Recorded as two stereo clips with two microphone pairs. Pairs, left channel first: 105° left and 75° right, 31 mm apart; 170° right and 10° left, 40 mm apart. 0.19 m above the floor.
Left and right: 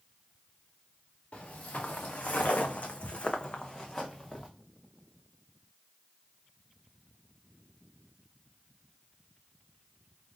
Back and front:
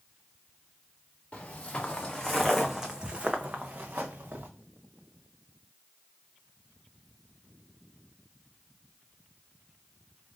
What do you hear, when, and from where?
1.3 s footsteps: 135° left, 1.0 m; by 4.5 s 25° left, 1.0 m